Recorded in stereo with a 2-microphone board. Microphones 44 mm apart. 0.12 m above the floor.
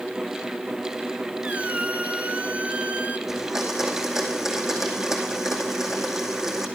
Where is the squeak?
35° right (ahead or behind), 0.5 m.